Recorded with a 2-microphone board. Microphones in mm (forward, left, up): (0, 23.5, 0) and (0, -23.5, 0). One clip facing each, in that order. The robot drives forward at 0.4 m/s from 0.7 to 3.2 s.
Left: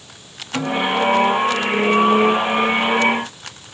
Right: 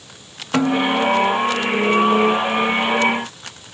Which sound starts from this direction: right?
A snare drum, at 0.5 s.